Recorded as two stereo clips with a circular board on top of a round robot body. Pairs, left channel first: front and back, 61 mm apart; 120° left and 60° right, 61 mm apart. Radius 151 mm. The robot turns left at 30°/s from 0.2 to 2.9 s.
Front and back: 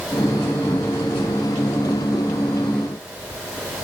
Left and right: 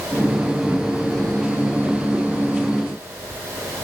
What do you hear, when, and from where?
Only background noise.